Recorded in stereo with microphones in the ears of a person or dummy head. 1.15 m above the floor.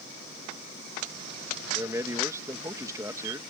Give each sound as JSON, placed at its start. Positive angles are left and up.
{"t": 1.7, "sound": "a man speaking", "side_deg": -15}